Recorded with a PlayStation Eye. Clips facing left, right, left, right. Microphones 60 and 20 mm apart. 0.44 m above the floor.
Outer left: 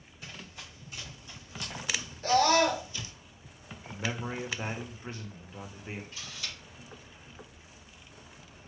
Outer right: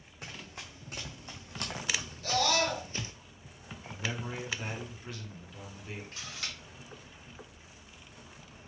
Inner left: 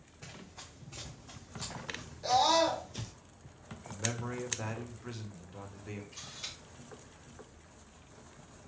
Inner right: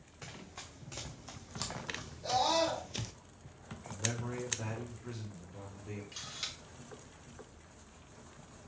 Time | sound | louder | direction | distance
0.2 | running footsteps | outer right 1 dB, inner right 1 dB | 65° right (ahead or behind) | 2.5 m
2.2 | a scream | outer left 6 dB, inner left 4 dB | 40° left (ahead or behind) | 1.5 m
3.9 | a man speaking | outer left 2 dB, inner left 1 dB | 35° left (ahead or behind) | 1.2 m
6.1 | a camera shutter | outer right 1 dB, inner right 2 dB | 75° right (ahead or behind) | 3 m